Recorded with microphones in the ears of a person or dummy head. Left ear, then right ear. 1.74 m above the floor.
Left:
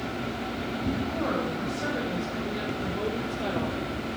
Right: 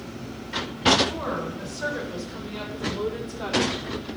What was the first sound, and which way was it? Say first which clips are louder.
A woman speaking: left 1 dB; 80° right.